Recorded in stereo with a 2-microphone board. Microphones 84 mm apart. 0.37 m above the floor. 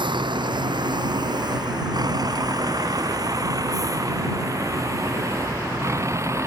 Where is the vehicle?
70° right (ahead or behind); by 6.5 s 35° right (ahead or behind).